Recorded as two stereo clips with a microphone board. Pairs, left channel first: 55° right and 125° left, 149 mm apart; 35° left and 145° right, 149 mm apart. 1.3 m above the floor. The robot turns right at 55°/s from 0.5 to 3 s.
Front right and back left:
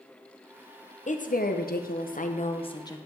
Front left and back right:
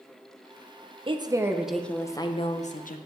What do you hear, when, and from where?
1.1 s a woman speaking: 90° right, 0.7 m; by 3.0 s 15° left, 0.7 m